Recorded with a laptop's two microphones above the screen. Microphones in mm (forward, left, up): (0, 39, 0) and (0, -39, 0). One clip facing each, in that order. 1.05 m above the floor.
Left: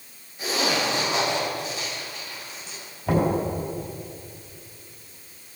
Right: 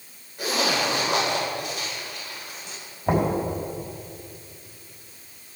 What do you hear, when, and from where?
0.4 s a zipper: 70° right (ahead or behind), 4 m
3.1 s knocking: 30° right (ahead or behind), 5 m